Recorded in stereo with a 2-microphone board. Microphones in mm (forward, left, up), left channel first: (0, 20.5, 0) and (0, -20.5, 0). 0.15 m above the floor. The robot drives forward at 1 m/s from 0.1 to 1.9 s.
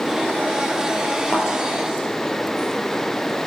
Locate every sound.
1.3 s a thud: 30° left (ahead or behind), 1.7 m; by 1.5 s 35° left (ahead or behind), 1.5 m